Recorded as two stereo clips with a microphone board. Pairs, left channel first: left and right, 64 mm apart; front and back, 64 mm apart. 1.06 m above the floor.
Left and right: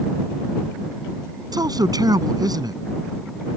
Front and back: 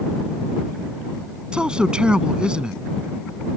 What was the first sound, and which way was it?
A man speaking, 105° right.